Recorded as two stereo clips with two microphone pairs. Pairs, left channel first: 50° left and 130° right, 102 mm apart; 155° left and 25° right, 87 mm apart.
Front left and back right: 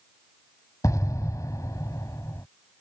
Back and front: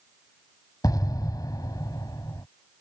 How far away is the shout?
No shout in this recording.